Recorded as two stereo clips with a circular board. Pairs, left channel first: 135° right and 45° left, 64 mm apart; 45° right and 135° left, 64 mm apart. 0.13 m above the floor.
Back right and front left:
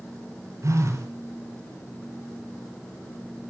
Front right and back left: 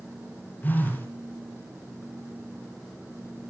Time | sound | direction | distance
0.6 | a phone buzzing | 15° left | 3.5 m